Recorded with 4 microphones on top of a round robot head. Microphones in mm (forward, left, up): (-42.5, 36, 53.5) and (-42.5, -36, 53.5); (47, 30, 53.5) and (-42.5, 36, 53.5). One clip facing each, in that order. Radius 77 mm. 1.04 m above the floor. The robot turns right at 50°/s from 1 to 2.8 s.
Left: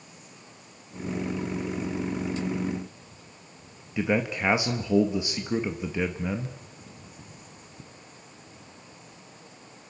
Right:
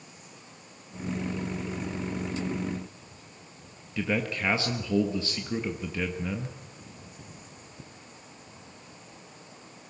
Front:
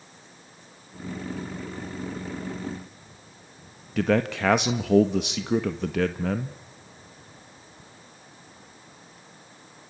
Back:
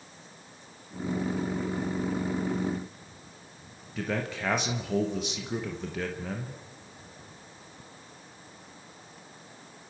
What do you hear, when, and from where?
4.0 s a man speaking: 15° left, 1.6 m